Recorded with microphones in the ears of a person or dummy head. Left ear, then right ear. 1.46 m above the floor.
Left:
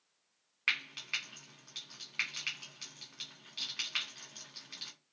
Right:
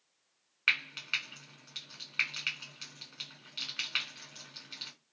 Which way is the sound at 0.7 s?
10° right (ahead or behind).